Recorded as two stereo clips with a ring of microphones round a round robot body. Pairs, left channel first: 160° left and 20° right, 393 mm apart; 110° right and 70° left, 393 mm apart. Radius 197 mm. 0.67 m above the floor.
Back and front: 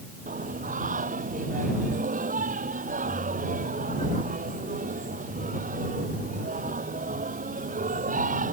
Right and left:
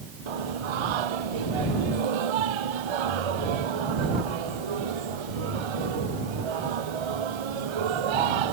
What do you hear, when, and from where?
0.3 s singing: 50° left